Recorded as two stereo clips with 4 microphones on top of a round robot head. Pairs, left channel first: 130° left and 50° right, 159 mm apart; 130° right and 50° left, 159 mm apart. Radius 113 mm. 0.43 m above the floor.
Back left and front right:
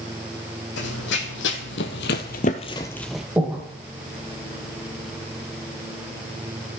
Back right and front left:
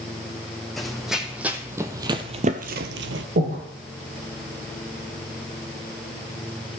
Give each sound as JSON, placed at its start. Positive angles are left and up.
{"t": 0.8, "sound": "running footsteps", "azimuth_deg": 140, "distance_m": 1.4}
{"t": 3.4, "sound": "breathing", "azimuth_deg": 35, "distance_m": 2.0}